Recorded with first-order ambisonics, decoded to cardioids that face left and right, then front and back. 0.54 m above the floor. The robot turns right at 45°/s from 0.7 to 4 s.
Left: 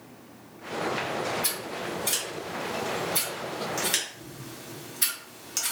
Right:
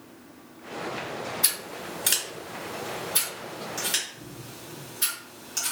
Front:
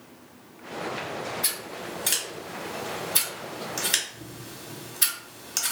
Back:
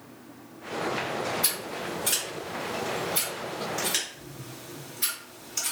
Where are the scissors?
95° right, 1.2 m; by 5.7 s 20° left, 1.2 m.